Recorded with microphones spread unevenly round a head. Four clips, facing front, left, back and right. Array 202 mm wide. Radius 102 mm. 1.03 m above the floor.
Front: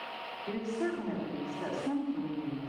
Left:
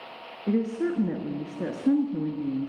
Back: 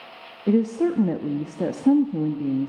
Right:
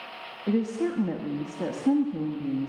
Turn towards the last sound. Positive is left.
turn(degrees=175)